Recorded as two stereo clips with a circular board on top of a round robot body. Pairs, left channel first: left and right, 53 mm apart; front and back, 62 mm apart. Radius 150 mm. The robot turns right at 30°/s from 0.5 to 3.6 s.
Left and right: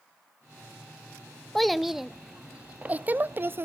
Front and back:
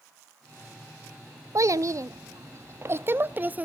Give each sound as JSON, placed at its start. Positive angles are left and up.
{"t": 1.6, "sound": "a child speaking", "azimuth_deg": 175, "distance_m": 0.8}